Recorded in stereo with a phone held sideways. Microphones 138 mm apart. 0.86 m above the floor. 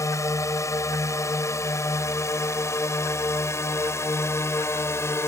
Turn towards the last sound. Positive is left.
turn(degrees=20)  # may be behind; listen again after turning